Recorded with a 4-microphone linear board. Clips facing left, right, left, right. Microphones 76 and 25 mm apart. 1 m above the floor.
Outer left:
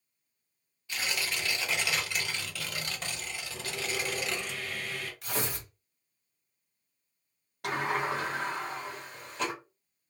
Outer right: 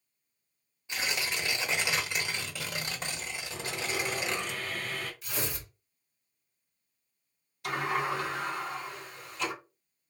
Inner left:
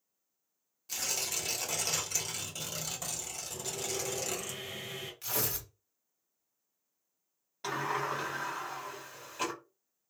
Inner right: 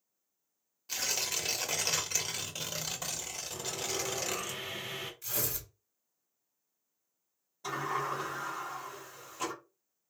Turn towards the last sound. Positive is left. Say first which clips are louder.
# even, inner left 1 dB
turn(degrees=65)  # may be behind; listen again after turning